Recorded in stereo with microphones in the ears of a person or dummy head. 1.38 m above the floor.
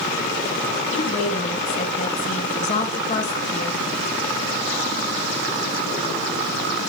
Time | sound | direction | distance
0.9 | a woman speaking | 35° left (ahead or behind) | 2.5 m